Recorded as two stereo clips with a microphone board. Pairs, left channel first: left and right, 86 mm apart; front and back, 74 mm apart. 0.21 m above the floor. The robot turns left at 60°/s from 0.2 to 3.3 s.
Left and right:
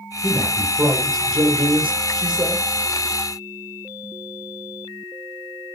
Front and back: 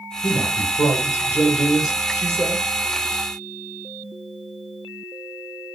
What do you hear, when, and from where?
0.2 s a man speaking: 5° left, 4.5 m; by 2.7 s 140° right, 4.5 m